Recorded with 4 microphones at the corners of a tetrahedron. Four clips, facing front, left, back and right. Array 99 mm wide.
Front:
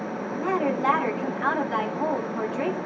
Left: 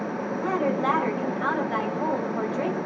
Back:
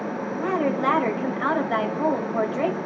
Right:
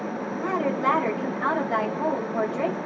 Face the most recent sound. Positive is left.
turn(degrees=-175)